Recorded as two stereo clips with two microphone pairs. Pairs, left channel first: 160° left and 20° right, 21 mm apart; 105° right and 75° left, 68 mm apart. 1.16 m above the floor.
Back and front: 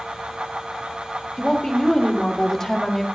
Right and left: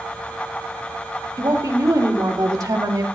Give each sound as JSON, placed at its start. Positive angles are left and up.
{"t": 1.4, "sound": "a woman speaking", "azimuth_deg": 100, "distance_m": 3.0}